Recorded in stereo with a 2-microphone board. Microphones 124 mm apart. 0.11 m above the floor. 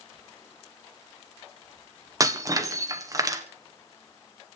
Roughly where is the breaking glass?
Right.